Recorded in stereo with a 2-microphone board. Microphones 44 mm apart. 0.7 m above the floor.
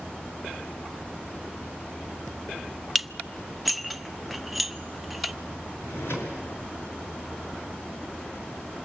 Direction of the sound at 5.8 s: 80° left.